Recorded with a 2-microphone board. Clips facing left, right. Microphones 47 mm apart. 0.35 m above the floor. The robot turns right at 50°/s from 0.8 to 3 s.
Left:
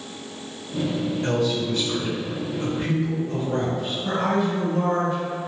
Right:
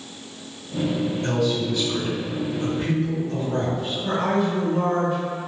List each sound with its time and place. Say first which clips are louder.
1.2 s a man speaking: left 1 dB; 65° left, 1.9 m; by 3.9 s 150° left, 1.9 m
4.0 s a woman speaking: right 1 dB; centre (ahead or behind), 1.5 m